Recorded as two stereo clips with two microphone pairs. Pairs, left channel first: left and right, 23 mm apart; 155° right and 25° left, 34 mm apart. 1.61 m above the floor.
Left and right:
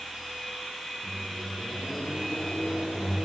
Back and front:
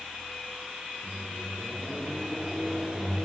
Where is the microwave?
95° left, 7 m.